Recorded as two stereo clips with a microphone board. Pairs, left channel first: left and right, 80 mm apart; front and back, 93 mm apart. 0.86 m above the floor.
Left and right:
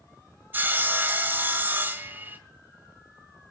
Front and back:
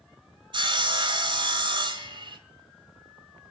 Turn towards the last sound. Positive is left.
turn(degrees=-155)